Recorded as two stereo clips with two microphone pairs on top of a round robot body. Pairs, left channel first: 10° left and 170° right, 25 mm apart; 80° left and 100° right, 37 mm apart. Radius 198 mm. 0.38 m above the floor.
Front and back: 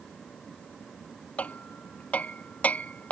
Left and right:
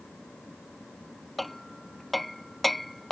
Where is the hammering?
15° right.